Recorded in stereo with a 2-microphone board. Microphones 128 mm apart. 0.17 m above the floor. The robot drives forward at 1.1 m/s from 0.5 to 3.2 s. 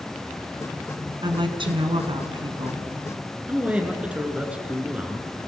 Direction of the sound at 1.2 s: 35° right (ahead or behind).